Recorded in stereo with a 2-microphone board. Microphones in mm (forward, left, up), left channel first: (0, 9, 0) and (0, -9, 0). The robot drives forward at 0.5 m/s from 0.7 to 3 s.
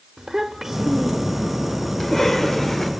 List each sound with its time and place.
0.2 s a child speaking: 25° right (ahead or behind), 0.6 m; by 1.6 s 15° right (ahead or behind), 1.0 m
2.0 s a cough: 20° left (ahead or behind), 2 m; by 2.9 s 25° left (ahead or behind), 1.8 m